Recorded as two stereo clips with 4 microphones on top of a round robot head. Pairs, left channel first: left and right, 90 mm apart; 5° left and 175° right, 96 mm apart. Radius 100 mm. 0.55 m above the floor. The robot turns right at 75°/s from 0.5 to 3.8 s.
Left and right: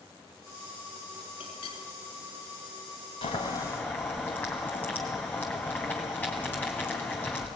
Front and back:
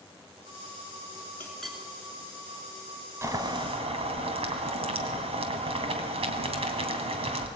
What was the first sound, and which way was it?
A clink, 75° left.